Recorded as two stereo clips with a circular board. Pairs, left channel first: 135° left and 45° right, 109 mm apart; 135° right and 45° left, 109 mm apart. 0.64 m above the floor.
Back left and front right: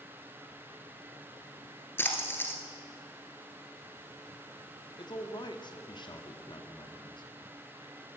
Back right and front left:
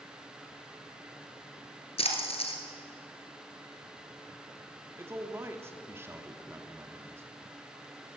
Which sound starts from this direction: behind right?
A splash, at 2.0 s.